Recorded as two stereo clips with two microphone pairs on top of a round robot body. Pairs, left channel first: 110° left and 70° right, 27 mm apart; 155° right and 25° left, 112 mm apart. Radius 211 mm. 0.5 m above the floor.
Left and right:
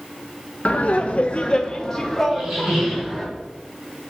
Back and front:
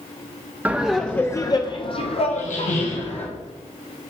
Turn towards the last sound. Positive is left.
turn(degrees=-150)